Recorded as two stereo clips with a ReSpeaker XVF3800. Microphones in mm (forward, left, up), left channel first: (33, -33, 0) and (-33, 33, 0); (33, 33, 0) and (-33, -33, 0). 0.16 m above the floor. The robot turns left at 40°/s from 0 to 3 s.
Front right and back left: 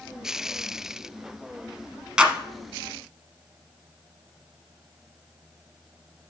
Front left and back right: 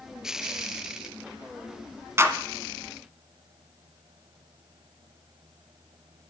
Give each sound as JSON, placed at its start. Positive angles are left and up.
{"t": 2.2, "sound": "a clap", "azimuth_deg": -155, "distance_m": 1.0}